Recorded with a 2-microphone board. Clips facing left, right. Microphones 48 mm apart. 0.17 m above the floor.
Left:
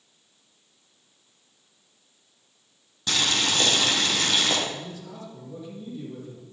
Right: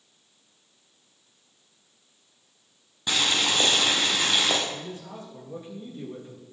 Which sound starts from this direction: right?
A man speaking, at 4.7 s.